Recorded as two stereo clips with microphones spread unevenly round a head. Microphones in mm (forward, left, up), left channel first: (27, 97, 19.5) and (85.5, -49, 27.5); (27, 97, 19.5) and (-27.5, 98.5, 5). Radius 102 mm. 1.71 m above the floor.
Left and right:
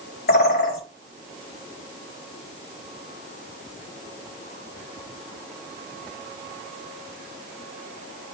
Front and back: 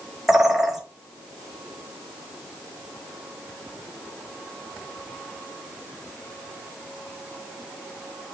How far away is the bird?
About 4 m.